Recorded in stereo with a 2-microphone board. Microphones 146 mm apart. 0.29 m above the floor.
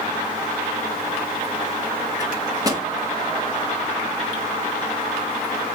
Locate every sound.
2.2 s a microwave: 25° right (ahead or behind), 0.8 m